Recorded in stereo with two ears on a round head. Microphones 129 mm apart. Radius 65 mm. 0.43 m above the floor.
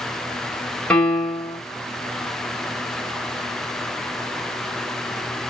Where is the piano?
5° left (ahead or behind), 2.5 m.